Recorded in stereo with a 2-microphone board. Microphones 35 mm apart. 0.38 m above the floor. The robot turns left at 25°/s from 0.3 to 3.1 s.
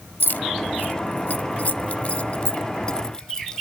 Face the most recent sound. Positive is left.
turn(degrees=20)  # may be behind; listen again after turning